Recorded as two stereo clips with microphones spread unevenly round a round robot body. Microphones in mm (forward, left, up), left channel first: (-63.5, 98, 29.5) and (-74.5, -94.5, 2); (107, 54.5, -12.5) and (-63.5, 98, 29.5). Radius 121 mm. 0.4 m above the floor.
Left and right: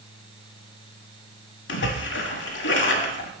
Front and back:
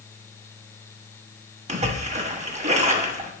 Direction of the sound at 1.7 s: 110° left.